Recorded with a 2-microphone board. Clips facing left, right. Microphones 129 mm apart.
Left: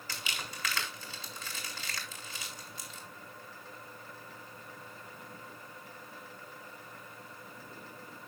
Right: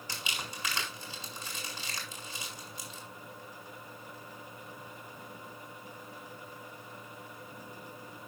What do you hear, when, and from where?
0.1 s crumpling: 15° right (ahead or behind), 3.5 m